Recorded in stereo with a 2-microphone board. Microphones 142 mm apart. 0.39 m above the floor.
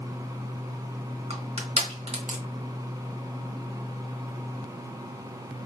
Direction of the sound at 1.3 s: 50° right (ahead or behind).